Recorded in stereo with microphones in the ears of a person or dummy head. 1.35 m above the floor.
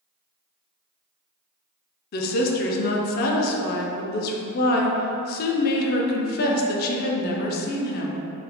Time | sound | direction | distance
2.1 | a woman speaking | 50° left (ahead or behind) | 0.5 m